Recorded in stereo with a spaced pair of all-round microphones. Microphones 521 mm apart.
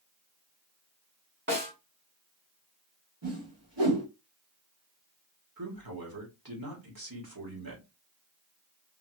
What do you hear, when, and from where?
1.5 s a snare drum: 20° right (ahead or behind), 2.5 m
3.2 s a whoosh: 55° right (ahead or behind), 2 m
5.6 s a man speaking: 45° right (ahead or behind), 1.6 m